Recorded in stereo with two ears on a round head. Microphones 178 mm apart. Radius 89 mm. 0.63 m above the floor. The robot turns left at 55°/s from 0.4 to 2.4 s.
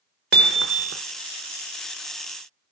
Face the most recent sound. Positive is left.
turn(degrees=-165)